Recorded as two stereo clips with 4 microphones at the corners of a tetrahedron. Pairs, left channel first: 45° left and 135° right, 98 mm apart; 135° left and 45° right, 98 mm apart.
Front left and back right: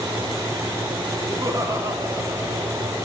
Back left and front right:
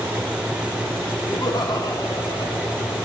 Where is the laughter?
170° left, 1.8 m.